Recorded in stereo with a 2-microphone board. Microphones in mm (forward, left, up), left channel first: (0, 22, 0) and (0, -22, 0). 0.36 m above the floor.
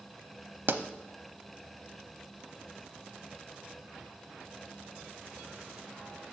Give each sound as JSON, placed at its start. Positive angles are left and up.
{"t": 0.7, "sound": "a pop", "side_deg": -55, "distance_m": 0.6}